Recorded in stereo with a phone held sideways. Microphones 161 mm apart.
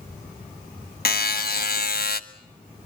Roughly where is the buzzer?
Left.